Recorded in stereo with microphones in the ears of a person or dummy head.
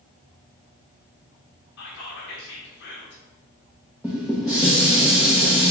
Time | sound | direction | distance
1.8 | whispering | 60° left (ahead or behind) | 1.0 m
4.0 | dishes clattering | 5° right (ahead or behind) | 0.5 m